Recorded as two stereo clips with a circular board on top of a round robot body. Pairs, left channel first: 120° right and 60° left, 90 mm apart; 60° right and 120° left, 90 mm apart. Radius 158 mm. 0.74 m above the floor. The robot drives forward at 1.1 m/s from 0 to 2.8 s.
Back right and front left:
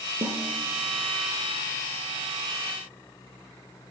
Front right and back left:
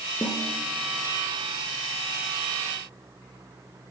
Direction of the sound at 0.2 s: 10° left.